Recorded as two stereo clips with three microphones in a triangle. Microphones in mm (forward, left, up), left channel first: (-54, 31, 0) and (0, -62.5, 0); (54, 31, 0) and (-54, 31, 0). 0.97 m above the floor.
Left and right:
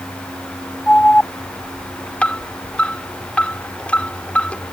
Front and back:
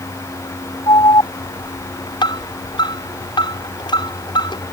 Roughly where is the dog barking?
No dog barking in this recording.